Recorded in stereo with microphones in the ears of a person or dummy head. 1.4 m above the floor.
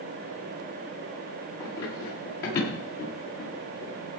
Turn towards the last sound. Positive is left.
turn(degrees=65)  # may be behind; listen again after turning